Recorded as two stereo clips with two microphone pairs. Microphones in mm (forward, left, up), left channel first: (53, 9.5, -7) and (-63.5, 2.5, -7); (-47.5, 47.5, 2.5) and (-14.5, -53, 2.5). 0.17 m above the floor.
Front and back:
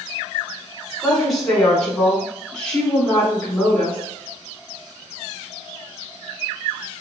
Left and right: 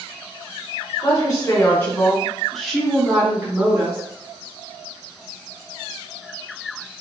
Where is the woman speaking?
95° left, 1.4 m; by 4.0 s 70° right, 1.3 m.